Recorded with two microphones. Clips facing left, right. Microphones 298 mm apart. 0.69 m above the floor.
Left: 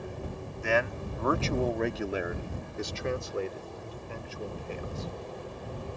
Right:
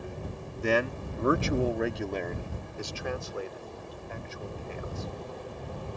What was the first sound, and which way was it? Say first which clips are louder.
A man speaking: right 2 dB; 45° right (ahead or behind).